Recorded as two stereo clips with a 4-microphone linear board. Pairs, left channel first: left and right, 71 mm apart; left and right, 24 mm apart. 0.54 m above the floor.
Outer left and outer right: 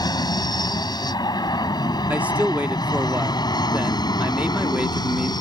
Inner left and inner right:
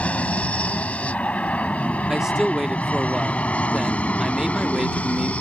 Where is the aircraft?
70° left (ahead or behind).